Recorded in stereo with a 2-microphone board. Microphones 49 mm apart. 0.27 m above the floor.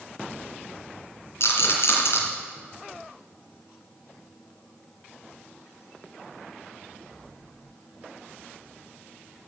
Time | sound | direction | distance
1.4 | a rattle | 60° left (ahead or behind) | 2.5 m